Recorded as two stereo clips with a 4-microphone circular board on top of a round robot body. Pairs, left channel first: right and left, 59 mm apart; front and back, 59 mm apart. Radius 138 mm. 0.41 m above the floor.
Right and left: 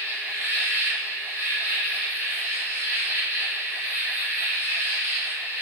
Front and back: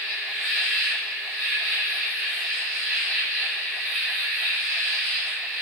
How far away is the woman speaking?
No woman speaking in this recording.